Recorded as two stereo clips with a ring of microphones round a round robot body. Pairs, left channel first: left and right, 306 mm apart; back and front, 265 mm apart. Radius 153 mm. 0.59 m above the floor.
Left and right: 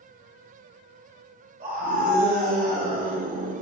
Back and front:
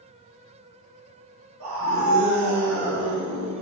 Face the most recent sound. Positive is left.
turn(degrees=-30)